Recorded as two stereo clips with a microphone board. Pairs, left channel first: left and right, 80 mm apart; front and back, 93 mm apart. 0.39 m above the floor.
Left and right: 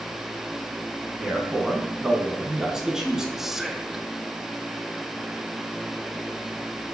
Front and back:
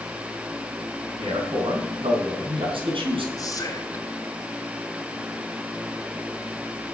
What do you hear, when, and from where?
1.2 s a man speaking: 175° right, 3.5 m
3.4 s whispering: 5° right, 1.8 m